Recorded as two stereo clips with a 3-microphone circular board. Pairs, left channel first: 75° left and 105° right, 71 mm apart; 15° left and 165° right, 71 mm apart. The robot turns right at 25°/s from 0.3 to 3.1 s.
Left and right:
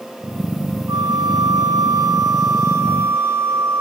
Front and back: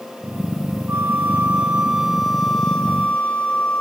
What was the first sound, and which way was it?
A flute, 110° right.